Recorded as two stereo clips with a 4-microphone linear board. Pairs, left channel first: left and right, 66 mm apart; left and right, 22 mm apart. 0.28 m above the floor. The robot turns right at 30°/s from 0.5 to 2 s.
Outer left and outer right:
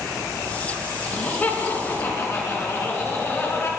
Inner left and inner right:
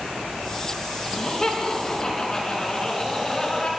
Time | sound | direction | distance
1.1 | laughter | 15° left (ahead or behind) | 3 m